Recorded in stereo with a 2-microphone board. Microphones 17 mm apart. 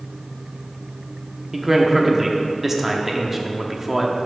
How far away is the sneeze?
No sneeze in this recording.